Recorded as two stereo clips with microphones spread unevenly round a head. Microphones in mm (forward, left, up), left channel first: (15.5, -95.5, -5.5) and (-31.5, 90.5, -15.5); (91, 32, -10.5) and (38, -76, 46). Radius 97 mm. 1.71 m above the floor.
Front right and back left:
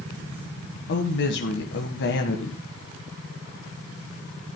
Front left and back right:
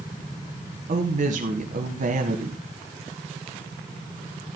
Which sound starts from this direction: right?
A woman speaking, at 0.9 s.